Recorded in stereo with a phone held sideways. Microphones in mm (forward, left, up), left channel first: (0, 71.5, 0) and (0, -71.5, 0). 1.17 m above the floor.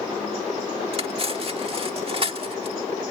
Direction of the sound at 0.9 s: 40° right (ahead or behind).